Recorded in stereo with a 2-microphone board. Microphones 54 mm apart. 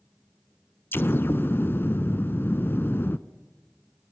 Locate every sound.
0.9 s an explosion: 40° left (ahead or behind), 0.8 m